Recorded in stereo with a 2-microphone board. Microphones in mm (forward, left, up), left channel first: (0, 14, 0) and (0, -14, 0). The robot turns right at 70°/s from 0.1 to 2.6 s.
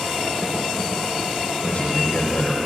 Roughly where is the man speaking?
Ahead left.